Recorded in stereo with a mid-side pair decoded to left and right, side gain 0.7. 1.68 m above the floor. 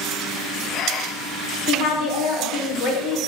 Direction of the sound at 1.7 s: 55° left.